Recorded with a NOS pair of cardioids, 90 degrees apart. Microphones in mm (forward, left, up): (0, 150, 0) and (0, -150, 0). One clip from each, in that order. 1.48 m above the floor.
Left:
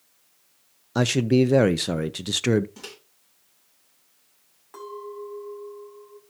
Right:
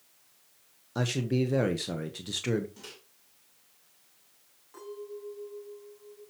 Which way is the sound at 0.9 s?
50° left.